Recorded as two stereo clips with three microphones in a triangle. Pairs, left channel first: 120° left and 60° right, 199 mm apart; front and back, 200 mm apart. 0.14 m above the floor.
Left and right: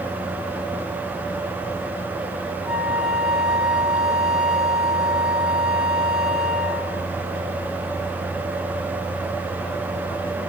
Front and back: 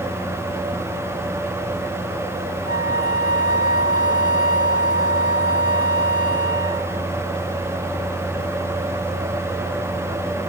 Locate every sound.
2.6 s a flute: 25° left, 1.4 m